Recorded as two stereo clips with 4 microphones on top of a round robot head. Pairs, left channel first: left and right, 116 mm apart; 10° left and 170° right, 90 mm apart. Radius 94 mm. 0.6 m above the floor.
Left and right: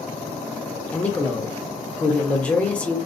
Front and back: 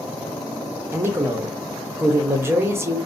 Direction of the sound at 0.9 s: 160° left.